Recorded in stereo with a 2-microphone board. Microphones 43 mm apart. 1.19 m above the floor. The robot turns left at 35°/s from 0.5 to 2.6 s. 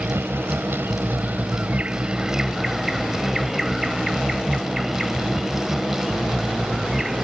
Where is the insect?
100° right; by 7.2 s 170° right.